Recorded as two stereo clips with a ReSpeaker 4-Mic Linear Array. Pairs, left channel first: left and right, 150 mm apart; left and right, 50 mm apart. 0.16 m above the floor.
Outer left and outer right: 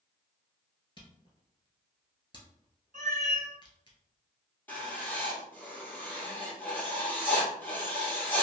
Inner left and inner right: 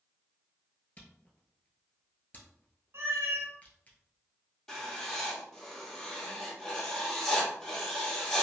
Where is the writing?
10° left (ahead or behind), 1.6 m.